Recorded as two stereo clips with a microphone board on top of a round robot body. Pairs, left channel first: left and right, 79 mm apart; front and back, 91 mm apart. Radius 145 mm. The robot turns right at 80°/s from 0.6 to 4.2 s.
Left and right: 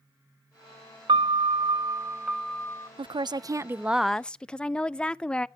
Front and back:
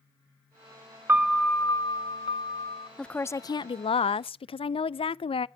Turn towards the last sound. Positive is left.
turn(degrees=10)